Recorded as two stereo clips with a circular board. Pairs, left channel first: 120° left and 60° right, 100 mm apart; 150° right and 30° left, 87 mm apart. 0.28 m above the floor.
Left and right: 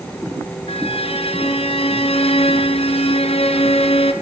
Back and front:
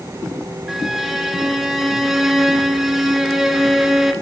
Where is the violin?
115° left, 1.3 m.